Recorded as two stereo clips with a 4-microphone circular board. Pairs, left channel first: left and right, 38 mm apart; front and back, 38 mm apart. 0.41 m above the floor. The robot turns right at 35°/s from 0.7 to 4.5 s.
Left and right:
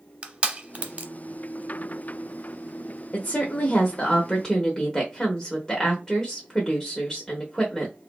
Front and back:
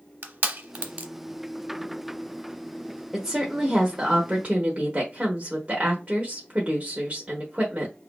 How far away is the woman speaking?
About 1.1 m.